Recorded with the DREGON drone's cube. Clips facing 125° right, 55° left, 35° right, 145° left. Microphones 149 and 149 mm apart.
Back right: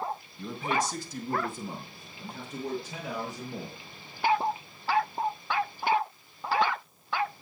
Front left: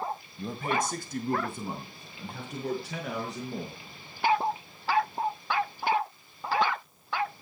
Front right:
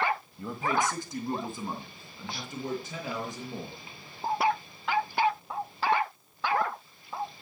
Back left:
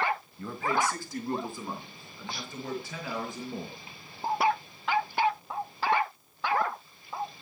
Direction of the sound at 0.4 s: 30° left.